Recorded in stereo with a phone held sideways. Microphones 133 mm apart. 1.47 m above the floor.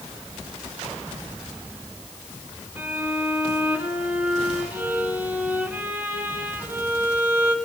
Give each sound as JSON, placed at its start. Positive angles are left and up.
{"t": 2.8, "sound": "a violin", "side_deg": -15, "distance_m": 2.0}